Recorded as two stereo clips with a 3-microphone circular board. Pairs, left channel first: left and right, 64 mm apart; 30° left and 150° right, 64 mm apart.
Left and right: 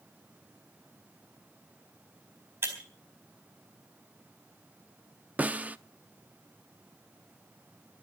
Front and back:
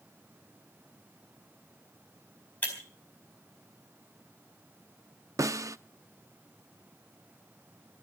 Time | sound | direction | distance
2.6 | breaking glass | 35° right | 4 m
5.4 | a snare drum | 155° right | 0.6 m